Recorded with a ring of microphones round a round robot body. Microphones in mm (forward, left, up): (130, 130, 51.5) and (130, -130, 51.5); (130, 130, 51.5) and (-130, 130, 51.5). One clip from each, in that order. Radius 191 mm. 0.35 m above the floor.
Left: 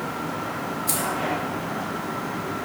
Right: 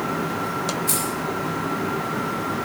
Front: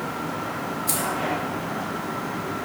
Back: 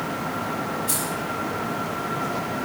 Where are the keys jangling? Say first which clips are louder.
Right 1 dB, front 1 dB; 20° left, 5 m.